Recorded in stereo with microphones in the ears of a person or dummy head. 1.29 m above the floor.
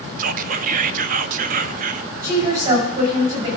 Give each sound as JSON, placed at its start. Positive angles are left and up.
{"t": 0.2, "sound": "whispering", "side_deg": -50, "distance_m": 0.7}
{"t": 2.2, "sound": "a woman speaking", "side_deg": -45, "distance_m": 7.0}